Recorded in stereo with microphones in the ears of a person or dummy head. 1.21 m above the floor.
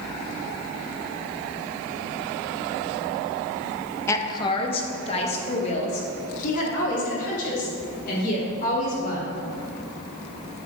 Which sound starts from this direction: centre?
A woman speaking, at 4.1 s.